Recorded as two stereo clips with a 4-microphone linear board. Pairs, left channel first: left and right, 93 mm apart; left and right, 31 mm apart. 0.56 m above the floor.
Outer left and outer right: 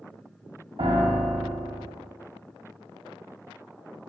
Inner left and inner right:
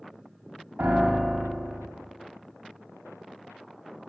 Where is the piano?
75° right (ahead or behind), 0.9 m.